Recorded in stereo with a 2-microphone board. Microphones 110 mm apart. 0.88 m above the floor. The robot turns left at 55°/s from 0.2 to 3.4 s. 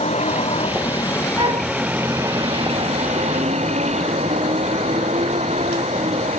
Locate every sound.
0.0 s a vehicle: 75° left (ahead or behind); by 6.4 s 90° right
1.4 s a flute: 55° right (ahead or behind); by 1.7 s 35° right (ahead or behind)